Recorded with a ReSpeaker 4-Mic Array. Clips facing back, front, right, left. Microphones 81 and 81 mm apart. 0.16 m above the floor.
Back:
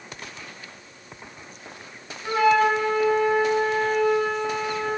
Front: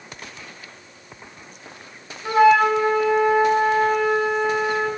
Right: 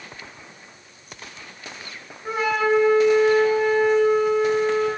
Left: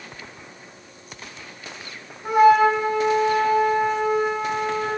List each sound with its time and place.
2.2 s a flute: 70° left, 4.5 m